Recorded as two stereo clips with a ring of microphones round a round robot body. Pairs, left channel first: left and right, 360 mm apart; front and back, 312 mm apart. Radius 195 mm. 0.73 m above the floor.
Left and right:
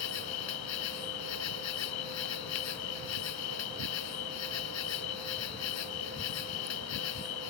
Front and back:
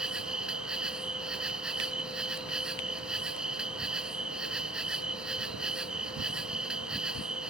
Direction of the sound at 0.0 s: 95° left.